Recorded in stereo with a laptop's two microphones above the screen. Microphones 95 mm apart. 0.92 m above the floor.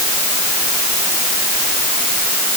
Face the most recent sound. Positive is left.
No sound to turn to.